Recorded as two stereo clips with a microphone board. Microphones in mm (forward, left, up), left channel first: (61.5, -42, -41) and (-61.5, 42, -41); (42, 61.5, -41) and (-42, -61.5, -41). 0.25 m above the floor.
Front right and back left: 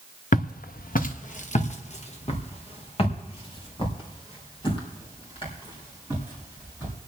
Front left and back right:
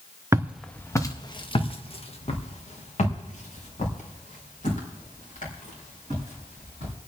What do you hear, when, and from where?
0.3 s footsteps: 55° right, 0.9 m; by 6.9 s 25° left, 8.5 m